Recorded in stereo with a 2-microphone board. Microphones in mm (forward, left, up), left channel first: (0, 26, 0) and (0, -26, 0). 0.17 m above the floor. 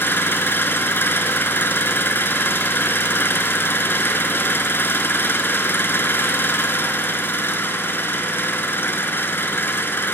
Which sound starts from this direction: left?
An engine running, at 0.0 s.